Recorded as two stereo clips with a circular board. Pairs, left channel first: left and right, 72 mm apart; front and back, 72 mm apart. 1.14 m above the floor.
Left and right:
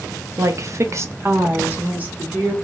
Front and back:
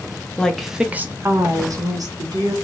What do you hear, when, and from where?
0.4 s a woman speaking: 70° right, 0.5 m; by 2.5 s 160° right, 1.3 m